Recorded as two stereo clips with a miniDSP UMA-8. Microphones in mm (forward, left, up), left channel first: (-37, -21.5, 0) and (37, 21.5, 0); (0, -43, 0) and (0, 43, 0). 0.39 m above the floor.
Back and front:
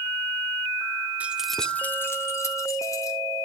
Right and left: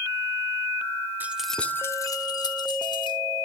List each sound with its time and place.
1.2 s keys jangling: 70° left, 0.8 m; by 3.2 s 105° right, 2.0 m